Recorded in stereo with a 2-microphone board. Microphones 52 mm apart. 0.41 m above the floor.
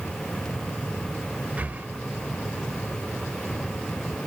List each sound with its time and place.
1.6 s breathing: 30° right (ahead or behind), 0.7 m